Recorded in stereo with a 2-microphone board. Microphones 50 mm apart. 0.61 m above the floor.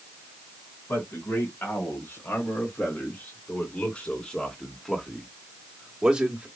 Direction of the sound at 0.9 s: 55° left (ahead or behind).